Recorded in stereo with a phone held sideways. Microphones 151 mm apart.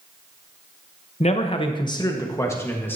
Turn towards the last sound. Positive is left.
turn(degrees=10)  # may be behind; listen again after turning